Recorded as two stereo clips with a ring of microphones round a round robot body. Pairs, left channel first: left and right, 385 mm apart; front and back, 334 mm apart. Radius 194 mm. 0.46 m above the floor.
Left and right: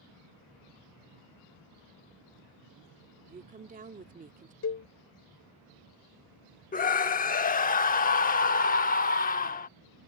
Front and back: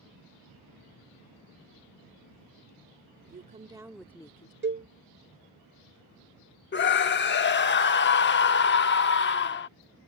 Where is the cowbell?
130° left.